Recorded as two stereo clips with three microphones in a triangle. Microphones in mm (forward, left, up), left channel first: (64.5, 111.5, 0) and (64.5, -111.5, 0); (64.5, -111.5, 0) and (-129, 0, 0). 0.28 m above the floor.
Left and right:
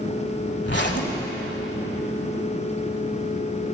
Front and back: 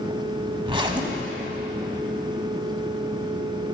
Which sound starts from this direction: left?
A zipper, at 0.7 s.